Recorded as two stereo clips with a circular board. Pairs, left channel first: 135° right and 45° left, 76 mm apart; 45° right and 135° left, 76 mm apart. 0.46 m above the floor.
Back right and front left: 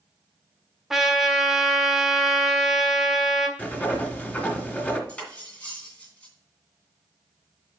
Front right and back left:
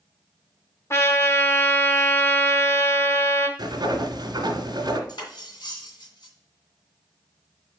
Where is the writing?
155° left, 1.6 m.